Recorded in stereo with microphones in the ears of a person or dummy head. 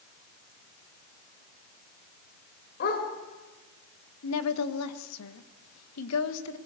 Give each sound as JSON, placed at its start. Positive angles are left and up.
{"t": 2.8, "sound": "a dog barking", "side_deg": 50, "distance_m": 3.0}
{"t": 4.2, "sound": "a woman speaking", "side_deg": 85, "distance_m": 1.5}